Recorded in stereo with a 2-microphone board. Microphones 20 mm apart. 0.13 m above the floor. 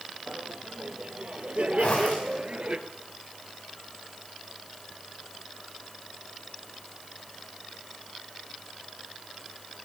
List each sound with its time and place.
0.3 s laughter: 70° right (ahead or behind), 4 m; by 2.8 s 50° right (ahead or behind), 2.5 m
1.8 s a zipper: 75° left (ahead or behind), 8.5 m